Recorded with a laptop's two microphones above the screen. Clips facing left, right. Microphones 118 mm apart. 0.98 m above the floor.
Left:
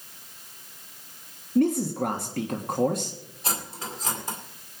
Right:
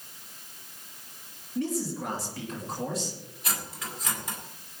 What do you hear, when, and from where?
1.6 s a man speaking: 55° left (ahead or behind), 1.3 m
3.4 s cutlery clinking: 30° left (ahead or behind), 2 m